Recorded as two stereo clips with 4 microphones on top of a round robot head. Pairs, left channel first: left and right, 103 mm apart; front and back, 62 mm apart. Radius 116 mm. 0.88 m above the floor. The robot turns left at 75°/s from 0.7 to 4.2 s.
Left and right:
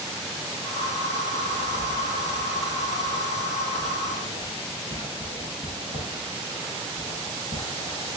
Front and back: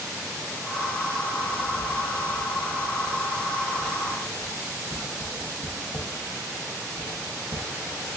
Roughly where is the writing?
Right.